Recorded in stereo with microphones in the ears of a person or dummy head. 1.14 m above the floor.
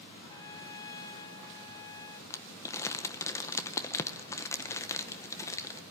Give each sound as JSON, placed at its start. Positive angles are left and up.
{"t": 0.3, "sound": "a trumpet", "side_deg": 25, "distance_m": 0.7}
{"t": 2.3, "sound": "crumpling", "side_deg": 15, "distance_m": 0.7}